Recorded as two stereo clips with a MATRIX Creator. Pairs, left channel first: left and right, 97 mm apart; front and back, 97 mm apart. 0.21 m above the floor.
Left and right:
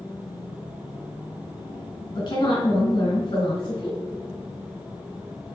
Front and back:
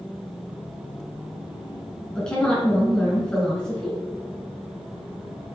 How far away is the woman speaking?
About 2.5 m.